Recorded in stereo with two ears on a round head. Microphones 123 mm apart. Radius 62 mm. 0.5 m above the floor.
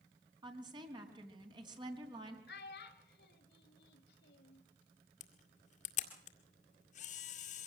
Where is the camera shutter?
55° left (ahead or behind), 2 m.